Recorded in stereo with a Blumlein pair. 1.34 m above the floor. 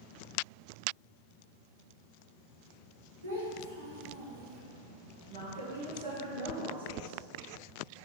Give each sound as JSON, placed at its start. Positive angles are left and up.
{"t": 3.2, "sound": "a child speaking", "azimuth_deg": -70, "distance_m": 1.5}
{"t": 5.3, "sound": "a woman speaking", "azimuth_deg": -65, "distance_m": 1.4}